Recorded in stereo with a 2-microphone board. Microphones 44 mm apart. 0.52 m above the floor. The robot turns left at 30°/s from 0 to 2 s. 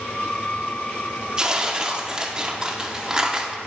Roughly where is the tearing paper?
Centre.